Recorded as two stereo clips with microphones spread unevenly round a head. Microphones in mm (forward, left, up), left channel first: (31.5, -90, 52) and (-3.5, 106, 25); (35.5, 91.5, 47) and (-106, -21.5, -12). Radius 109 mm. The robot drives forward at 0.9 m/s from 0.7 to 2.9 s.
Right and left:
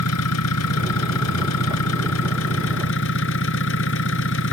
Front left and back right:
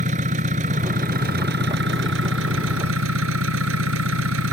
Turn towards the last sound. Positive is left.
turn(degrees=-110)